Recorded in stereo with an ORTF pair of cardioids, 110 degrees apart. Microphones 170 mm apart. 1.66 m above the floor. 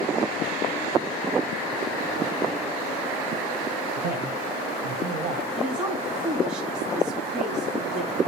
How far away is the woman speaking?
About 3.5 m.